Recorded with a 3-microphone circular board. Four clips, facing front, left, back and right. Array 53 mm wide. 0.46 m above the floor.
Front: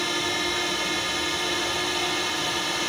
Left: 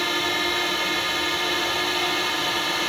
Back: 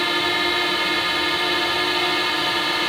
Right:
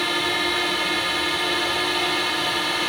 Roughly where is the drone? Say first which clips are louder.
Right 1 dB, back 6 dB; behind.